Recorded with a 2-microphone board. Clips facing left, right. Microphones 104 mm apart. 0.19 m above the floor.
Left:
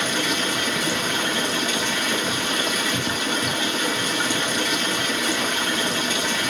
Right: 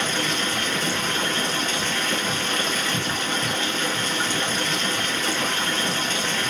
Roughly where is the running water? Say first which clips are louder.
Left 1 dB; centre.